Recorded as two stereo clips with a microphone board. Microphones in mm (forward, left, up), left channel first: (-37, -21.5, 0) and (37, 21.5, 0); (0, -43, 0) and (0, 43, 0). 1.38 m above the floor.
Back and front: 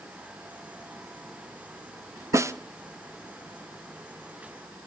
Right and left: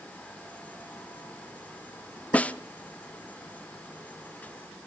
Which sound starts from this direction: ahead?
A snare drum, at 2.3 s.